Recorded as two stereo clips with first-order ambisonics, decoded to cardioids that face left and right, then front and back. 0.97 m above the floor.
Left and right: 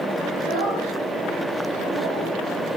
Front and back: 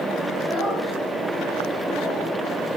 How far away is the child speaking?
About 5 m.